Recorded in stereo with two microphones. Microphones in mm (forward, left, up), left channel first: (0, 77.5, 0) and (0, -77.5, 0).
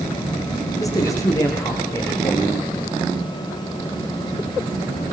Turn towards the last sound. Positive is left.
turn(degrees=20)  # may be behind; listen again after turning